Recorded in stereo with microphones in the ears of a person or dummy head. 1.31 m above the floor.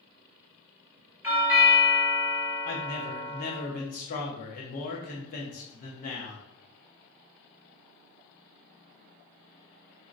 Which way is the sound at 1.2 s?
10° right (ahead or behind).